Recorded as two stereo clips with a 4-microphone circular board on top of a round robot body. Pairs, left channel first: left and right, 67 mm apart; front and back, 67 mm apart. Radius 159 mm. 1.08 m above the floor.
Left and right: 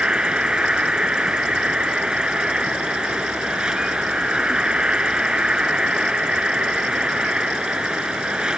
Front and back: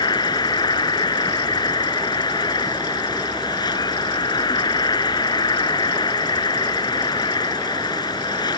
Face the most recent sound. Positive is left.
turn(degrees=-10)